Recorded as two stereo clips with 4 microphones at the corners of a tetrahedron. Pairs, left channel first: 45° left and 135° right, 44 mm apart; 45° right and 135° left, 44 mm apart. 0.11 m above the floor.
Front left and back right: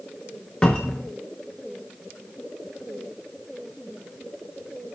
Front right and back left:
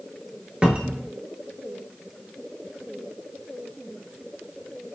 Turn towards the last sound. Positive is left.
turn(degrees=95)